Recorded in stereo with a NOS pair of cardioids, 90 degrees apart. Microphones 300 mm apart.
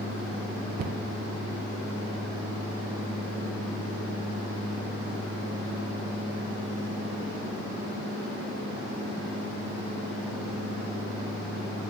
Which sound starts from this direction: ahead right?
A cupboard door, at 0.8 s.